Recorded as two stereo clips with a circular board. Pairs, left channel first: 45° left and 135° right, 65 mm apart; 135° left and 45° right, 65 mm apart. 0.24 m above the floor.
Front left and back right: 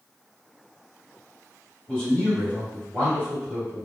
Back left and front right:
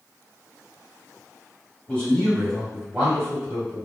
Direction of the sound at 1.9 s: 95° left.